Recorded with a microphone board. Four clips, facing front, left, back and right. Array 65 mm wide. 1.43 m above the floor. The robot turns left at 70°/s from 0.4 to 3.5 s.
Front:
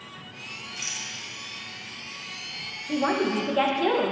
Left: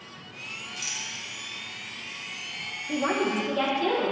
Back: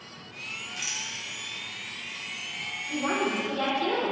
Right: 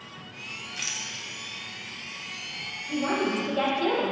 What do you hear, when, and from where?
0.8 s a rattle: 95° right, 0.8 m; by 1.1 s 115° right, 0.8 m
2.9 s a woman speaking: 40° left, 1.2 m; by 4.1 s straight ahead, 1.2 m